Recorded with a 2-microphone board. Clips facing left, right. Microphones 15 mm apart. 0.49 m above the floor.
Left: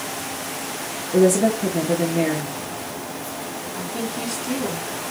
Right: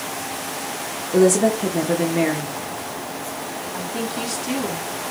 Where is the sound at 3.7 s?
60° right (ahead or behind), 3 m.